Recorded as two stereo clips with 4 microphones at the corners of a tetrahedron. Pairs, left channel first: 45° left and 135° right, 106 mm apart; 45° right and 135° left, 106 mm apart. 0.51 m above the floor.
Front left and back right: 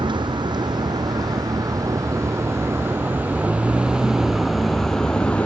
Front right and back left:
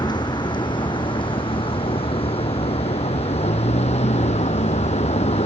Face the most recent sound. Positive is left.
turn(degrees=-35)